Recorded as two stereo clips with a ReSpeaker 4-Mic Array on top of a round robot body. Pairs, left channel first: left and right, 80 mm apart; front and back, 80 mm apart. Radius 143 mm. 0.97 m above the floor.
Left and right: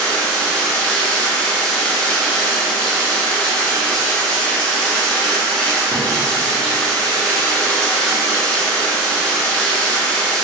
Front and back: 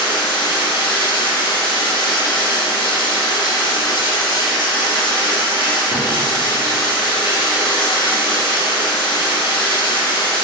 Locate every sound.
0.0 s running water: 10° left, 1.0 m